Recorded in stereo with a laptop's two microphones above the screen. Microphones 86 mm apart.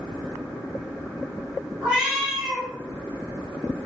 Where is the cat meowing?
10° right (ahead or behind), 0.7 m.